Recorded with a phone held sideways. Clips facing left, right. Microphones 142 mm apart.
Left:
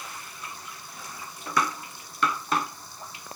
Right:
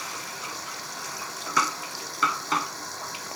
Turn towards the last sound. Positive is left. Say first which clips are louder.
# right 4 dB
turn(degrees=-80)